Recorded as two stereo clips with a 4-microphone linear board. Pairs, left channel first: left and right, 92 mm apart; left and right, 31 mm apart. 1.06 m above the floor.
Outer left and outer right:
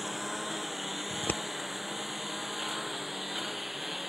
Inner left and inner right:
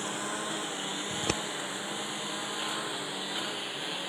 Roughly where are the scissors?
Left.